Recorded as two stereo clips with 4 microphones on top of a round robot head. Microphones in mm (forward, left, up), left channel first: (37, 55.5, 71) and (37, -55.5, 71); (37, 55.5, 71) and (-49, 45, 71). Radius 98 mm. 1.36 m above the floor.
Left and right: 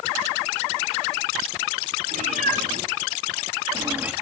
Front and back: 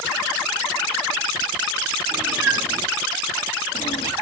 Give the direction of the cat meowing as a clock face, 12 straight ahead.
3 o'clock.